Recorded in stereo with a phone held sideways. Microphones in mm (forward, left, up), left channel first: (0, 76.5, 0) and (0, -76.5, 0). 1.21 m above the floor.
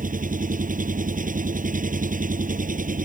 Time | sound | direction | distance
0.0 | an engine running | 60° right (ahead or behind) | ?